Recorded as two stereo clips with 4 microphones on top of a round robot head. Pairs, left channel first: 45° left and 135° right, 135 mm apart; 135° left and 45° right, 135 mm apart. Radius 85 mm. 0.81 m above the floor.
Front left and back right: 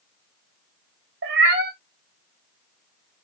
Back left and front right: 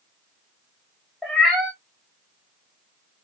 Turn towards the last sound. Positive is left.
turn(degrees=-135)